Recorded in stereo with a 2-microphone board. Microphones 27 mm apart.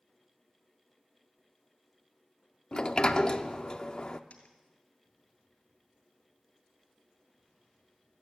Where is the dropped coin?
55° left (ahead or behind), 2.5 m.